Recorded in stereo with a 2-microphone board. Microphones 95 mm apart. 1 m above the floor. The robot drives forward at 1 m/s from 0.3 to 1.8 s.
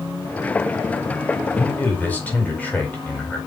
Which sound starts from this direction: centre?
A man speaking, at 1.6 s.